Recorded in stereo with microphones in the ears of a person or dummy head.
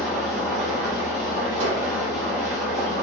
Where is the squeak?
35° right (ahead or behind), 1.1 m.